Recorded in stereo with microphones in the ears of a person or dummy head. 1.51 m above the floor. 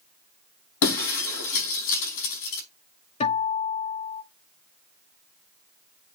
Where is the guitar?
35° left (ahead or behind), 2 m.